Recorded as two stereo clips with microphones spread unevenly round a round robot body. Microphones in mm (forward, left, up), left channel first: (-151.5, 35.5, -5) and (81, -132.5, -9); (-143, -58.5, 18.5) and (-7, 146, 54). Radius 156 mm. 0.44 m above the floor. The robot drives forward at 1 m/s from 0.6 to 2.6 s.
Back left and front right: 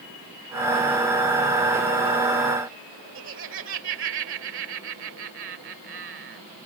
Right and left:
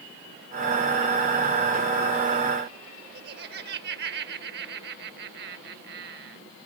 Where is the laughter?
5° left.